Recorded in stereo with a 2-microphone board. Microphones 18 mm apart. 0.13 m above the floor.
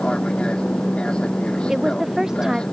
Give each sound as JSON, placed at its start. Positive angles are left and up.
{"t": 0.0, "sound": "an aircraft", "side_deg": 55}
{"t": 1.7, "sound": "a woman speaking", "side_deg": -25}